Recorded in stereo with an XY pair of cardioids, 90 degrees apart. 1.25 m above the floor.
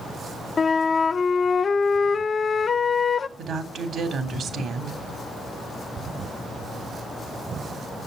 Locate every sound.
0.6 s a flute: 45° left, 0.8 m
3.4 s a woman speaking: 65° right, 3 m